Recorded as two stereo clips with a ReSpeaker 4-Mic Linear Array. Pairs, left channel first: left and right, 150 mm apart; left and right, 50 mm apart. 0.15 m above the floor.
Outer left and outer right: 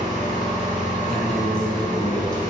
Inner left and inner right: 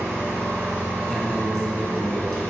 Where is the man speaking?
5° left (ahead or behind), 1.1 m.